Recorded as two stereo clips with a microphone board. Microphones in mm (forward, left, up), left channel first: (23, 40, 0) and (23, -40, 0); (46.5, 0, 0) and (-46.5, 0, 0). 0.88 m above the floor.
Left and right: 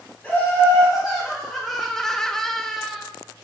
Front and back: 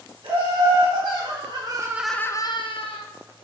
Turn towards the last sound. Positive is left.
turn(degrees=0)